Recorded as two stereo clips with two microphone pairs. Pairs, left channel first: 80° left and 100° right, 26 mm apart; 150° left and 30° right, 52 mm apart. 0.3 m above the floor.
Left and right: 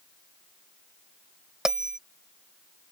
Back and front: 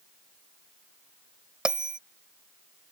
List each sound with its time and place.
1.6 s a bell: 85° right